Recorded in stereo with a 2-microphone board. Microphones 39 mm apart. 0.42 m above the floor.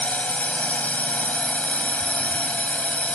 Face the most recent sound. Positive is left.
turn(degrees=40)  # may be behind; listen again after turning